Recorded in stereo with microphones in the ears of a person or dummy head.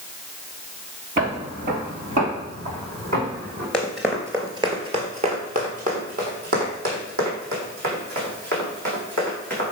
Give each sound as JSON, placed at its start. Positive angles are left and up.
{"t": 1.2, "sound": "footsteps", "side_deg": -40, "distance_m": 1.6}
{"t": 3.7, "sound": "running footsteps", "side_deg": 5, "distance_m": 1.4}